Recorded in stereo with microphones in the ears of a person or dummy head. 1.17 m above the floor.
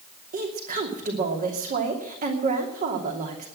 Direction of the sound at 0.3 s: 40° right (ahead or behind).